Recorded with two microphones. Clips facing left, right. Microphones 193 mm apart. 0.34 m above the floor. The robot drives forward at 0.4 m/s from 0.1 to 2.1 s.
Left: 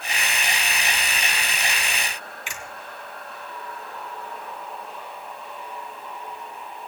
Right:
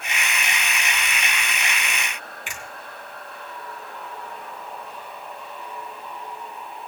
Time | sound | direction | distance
2.5 | a finger snap | 55° right (ahead or behind) | 3 m